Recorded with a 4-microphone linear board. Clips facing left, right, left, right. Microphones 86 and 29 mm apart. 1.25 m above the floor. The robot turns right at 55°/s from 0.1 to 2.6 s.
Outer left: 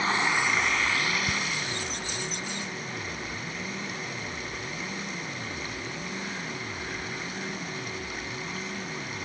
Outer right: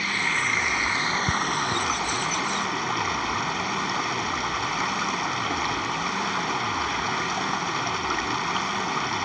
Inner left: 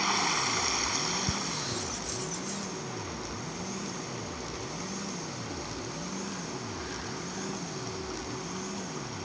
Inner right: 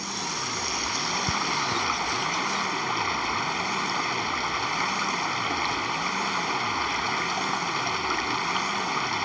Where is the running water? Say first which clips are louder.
Outer left 1 dB, inner left 3 dB; 155° left; by 9.3 s 70° right.